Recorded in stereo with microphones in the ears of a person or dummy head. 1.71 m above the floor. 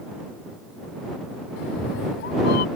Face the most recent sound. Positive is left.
turn(degrees=55)  # may be behind; listen again after turning